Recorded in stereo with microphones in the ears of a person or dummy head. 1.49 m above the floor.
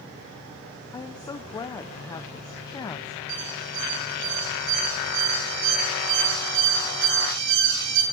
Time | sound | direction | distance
0.9 | a woman speaking | 20° left (ahead or behind) | 0.8 m
3.3 | an alarm | 65° right (ahead or behind) | 7.5 m